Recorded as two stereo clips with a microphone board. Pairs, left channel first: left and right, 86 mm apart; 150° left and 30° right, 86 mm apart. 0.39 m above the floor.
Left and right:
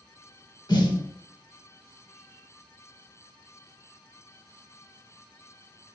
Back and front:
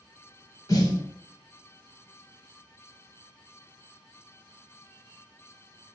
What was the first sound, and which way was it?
A snare drum, 120° left.